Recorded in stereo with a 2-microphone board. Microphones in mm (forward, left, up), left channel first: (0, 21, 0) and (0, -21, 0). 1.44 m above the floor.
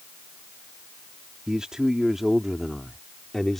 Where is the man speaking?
20° right (ahead or behind); by 3.6 s 5° left (ahead or behind).